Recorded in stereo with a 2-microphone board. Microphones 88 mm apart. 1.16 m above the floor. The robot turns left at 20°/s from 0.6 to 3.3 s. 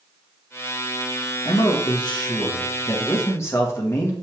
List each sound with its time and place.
1.4 s a man speaking: 70° left, 1.6 m; by 4.1 s 35° left, 1.6 m